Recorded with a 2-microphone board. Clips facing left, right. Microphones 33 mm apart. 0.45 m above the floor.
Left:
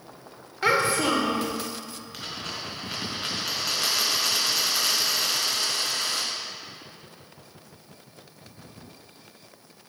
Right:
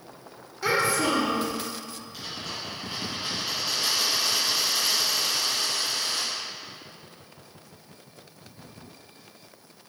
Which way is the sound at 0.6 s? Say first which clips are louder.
Left 2 dB; 45° left (ahead or behind).